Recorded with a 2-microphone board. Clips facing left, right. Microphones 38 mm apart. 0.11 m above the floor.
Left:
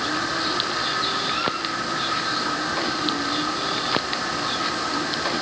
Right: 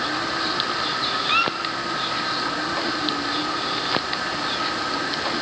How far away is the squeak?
About 1.9 m.